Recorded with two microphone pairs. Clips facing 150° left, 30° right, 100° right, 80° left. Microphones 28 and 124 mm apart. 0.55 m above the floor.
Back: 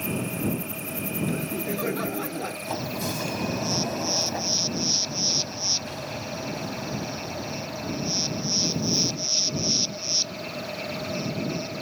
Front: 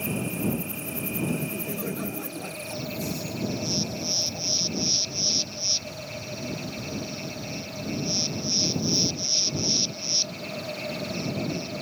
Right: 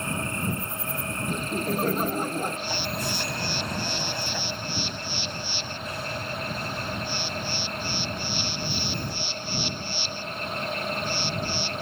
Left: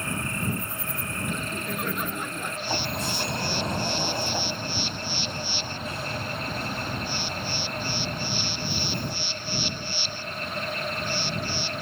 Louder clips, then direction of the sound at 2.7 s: Back 1 dB, left 1 dB; 145° left.